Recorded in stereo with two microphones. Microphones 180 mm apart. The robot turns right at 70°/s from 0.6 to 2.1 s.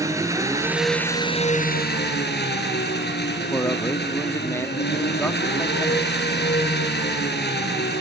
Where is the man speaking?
15° left (ahead or behind), 1.0 m.